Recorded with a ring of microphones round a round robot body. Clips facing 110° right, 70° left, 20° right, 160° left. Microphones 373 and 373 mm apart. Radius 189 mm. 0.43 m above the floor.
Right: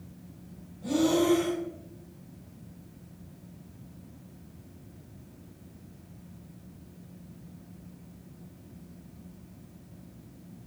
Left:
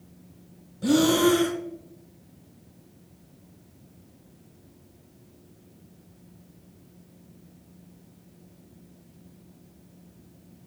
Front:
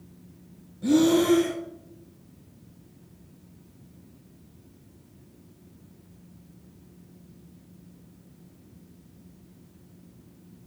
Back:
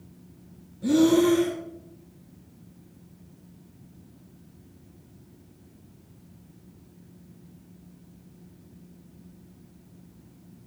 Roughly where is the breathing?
Ahead left.